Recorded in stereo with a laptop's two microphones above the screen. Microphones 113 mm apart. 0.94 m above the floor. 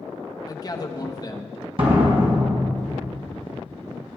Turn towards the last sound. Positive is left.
turn(degrees=-50)  # may be behind; listen again after turning